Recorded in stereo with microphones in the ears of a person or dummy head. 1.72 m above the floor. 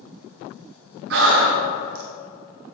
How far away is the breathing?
About 0.8 m.